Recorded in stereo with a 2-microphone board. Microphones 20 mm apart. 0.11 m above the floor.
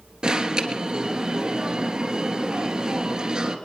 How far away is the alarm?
About 1.5 m.